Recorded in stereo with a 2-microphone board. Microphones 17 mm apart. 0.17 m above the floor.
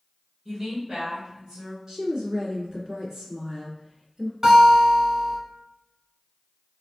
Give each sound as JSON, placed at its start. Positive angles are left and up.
{"t": 0.5, "sound": "a woman speaking", "side_deg": -40, "distance_m": 1.9}
{"t": 1.9, "sound": "a woman speaking", "side_deg": -35, "distance_m": 1.7}
{"t": 4.4, "sound": "a guitar", "side_deg": -35, "distance_m": 1.4}